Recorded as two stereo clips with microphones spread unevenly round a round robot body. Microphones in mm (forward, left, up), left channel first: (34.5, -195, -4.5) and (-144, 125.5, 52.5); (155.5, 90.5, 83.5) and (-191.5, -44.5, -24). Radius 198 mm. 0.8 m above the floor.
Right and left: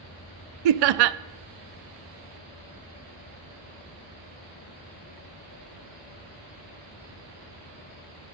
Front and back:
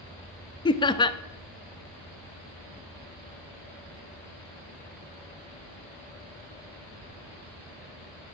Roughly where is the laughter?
Left.